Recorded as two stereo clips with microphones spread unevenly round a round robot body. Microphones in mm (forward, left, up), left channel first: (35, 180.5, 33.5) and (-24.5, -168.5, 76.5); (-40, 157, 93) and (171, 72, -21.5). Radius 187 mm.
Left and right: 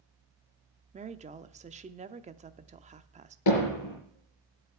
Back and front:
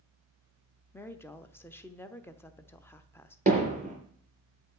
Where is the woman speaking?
40° right, 0.7 m.